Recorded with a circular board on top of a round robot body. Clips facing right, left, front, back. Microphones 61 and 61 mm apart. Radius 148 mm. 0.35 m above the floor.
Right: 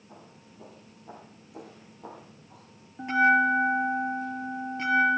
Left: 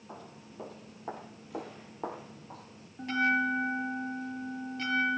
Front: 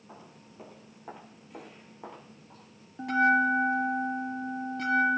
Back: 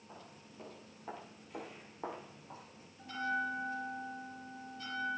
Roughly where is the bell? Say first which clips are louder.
Right 7 dB, front 13 dB; ahead.